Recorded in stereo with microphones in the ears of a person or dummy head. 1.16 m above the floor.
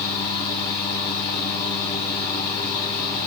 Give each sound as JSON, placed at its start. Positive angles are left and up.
{"t": 0.0, "sound": "a fan", "side_deg": 25, "distance_m": 0.9}